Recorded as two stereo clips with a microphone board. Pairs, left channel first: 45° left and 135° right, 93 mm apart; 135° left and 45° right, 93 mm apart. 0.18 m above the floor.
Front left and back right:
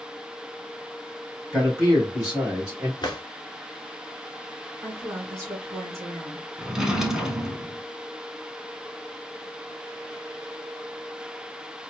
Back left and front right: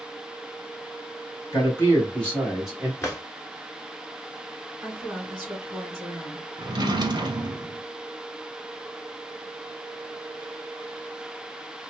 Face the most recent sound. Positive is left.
turn(degrees=-50)